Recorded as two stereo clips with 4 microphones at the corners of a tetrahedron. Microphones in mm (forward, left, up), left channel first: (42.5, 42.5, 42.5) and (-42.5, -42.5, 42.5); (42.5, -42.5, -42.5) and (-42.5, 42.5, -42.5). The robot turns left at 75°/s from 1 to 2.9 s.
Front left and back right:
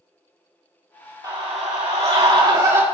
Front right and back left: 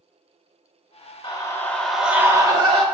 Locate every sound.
1.2 s a scream: 85° right, 1.8 m; by 2.8 s 155° left, 1.8 m